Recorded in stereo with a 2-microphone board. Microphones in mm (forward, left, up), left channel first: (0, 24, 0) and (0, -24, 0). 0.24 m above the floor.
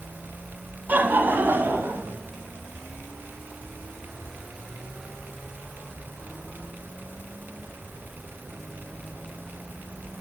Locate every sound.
0.9 s laughter: 35° right (ahead or behind), 1.2 m; by 2.2 s 50° right (ahead or behind), 2.0 m